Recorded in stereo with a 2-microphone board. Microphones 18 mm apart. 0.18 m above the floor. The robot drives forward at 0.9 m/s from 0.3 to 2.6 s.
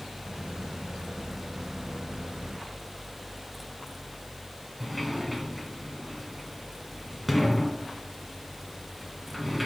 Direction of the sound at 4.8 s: 5° right (ahead or behind).